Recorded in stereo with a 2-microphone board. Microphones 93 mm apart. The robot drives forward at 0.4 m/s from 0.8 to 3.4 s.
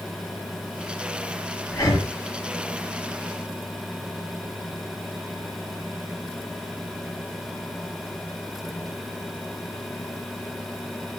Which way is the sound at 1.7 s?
40° left (ahead or behind).